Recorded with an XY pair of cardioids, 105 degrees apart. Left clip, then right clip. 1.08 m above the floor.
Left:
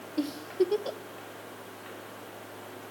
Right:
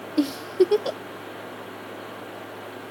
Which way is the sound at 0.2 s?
50° right.